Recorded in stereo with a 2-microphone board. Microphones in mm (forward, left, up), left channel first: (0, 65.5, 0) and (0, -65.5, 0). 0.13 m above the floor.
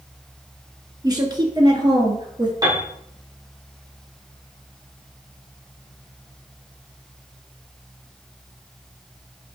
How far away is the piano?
About 2.5 m.